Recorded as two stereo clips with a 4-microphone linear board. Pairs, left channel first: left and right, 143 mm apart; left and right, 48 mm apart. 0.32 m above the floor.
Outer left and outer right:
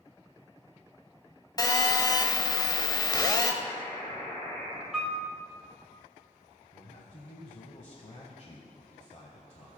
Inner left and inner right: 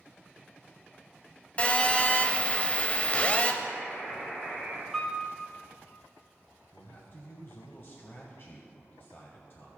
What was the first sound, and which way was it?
A phone buzzing, 30° left (ahead or behind).